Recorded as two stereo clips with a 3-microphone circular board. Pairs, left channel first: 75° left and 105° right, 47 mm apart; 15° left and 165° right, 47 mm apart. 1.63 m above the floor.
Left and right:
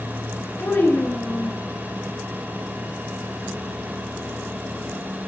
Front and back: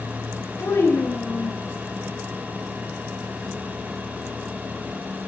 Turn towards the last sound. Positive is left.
turn(degrees=35)